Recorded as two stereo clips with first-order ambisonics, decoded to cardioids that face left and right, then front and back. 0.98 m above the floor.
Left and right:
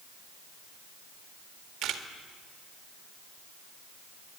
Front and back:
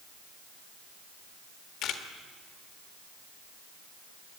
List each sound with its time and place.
1.8 s a camera shutter: 45° right, 1.7 m